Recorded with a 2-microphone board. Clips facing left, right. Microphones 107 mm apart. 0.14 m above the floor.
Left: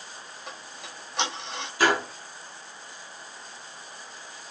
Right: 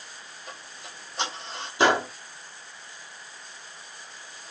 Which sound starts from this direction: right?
A gunshot, at 1.8 s.